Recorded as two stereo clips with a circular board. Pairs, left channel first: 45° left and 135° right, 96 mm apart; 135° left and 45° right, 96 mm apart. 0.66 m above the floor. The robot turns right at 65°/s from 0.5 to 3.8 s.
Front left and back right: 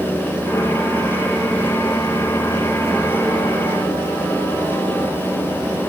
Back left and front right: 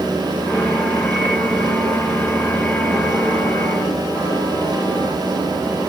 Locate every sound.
Only background noise.